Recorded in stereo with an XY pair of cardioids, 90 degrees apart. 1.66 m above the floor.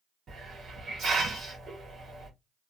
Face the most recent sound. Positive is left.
turn(degrees=-60)